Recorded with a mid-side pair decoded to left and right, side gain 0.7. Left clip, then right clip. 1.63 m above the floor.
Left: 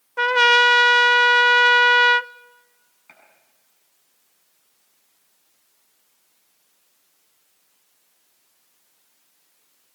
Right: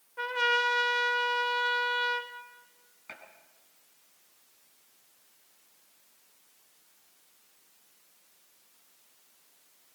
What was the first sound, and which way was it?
A trumpet, 55° left.